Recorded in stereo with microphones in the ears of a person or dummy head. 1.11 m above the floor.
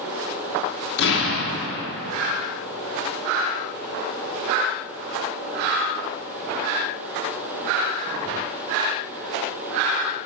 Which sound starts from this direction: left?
An explosion, at 1.0 s.